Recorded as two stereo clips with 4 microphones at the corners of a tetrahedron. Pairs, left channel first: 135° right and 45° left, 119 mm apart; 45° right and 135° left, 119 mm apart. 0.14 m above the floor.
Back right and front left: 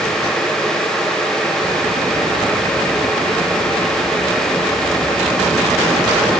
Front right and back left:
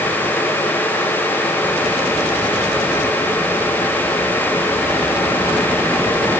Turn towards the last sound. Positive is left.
No sound to turn to.